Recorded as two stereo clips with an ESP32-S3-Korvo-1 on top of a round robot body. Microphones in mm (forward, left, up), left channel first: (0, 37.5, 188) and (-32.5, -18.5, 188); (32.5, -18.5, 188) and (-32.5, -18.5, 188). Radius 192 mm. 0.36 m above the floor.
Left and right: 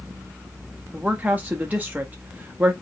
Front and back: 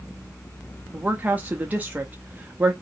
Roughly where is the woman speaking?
Behind right.